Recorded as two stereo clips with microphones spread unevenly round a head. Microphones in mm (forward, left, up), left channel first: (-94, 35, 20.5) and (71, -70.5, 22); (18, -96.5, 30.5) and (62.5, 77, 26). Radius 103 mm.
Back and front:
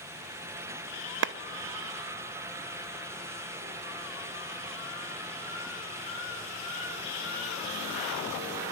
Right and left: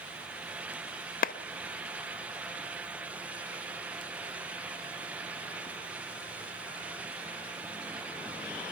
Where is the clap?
60° right, 0.7 m.